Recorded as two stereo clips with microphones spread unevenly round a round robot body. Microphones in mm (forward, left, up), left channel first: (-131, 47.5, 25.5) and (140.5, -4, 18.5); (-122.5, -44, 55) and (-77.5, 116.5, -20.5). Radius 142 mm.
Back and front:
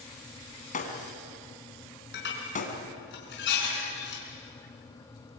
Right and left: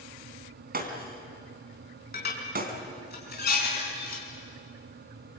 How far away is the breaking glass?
About 3.5 m.